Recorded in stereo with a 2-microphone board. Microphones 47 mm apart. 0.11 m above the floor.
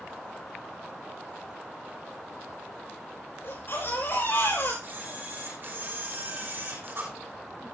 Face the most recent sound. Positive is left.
turn(degrees=-50)  # may be behind; listen again after turning